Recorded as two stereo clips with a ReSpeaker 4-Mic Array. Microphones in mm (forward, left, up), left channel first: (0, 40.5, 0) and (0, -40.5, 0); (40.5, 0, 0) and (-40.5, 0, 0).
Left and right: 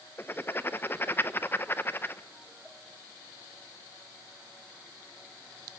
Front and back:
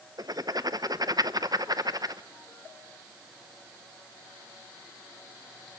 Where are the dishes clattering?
No dishes clattering in this recording.